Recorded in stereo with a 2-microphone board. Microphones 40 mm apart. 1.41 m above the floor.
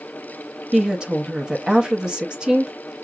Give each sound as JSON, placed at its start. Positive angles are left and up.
{"t": 0.7, "sound": "a woman speaking", "side_deg": -20, "distance_m": 0.9}